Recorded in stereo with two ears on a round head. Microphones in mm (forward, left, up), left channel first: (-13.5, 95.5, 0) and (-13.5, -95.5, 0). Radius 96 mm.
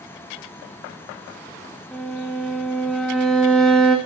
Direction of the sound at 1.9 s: Centre (ahead or behind).